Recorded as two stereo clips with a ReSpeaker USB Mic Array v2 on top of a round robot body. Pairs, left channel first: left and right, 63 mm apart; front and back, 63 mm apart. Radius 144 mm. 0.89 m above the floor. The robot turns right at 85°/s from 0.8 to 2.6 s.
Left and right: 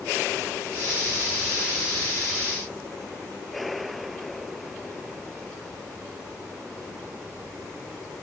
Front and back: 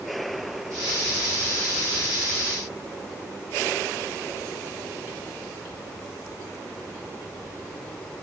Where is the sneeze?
I don't hear a sneeze.